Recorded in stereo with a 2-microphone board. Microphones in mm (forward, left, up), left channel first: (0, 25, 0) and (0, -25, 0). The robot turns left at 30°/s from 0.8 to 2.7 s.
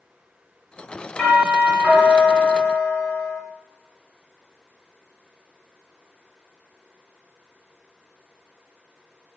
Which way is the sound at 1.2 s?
25° left.